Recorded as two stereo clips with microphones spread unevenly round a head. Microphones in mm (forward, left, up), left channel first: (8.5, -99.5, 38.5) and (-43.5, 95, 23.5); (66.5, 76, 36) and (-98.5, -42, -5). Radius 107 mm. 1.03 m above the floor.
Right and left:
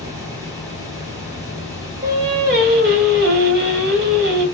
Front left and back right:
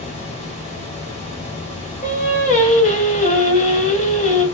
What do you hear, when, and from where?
0.0 s a fan: 75° left, 1.3 m
2.0 s singing: 90° left, 1.1 m